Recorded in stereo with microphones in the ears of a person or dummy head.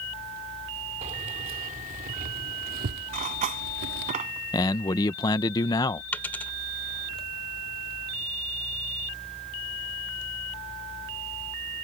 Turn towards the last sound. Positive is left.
turn(degrees=10)  # may be behind; listen again after turning